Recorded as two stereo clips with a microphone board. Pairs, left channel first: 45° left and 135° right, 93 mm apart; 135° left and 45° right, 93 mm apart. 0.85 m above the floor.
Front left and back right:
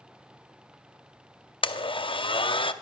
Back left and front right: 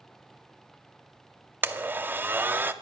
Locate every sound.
1.6 s a blender: 25° left, 0.6 m